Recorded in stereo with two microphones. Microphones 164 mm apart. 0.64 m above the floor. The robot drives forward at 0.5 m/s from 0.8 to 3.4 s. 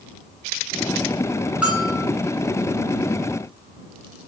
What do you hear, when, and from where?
1.6 s a bell: 5° right (ahead or behind), 4.5 m